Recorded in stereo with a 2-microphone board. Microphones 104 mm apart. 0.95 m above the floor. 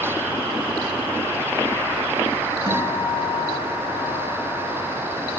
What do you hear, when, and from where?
2.7 s a guitar: 45° left (ahead or behind), 6 m